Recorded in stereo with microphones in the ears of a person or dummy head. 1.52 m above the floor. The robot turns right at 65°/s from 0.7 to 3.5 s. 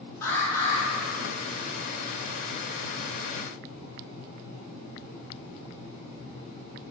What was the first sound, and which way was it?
An alarm, 20° left (ahead or behind).